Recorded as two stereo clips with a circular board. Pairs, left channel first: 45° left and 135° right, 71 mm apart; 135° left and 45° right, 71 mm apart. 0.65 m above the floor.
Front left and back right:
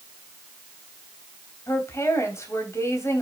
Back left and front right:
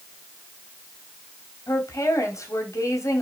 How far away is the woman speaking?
About 3.5 m.